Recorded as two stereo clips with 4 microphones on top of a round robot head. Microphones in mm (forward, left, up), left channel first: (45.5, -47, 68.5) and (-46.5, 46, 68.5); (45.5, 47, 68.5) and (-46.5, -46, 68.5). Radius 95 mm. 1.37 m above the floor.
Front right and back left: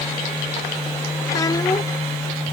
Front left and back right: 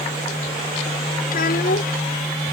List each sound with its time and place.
1.3 s a child speaking: 20° left